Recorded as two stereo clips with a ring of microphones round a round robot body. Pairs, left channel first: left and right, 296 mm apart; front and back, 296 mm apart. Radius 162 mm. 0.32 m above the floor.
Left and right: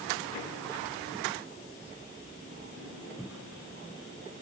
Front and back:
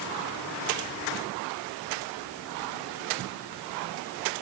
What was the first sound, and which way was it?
Only background noise.